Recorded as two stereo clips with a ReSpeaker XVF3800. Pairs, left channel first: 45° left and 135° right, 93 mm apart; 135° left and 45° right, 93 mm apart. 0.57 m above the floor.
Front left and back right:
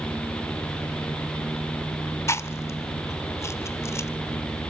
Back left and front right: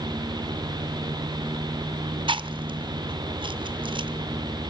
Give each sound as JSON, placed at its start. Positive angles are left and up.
{"t": 2.3, "sound": "chewing", "azimuth_deg": -15, "distance_m": 0.5}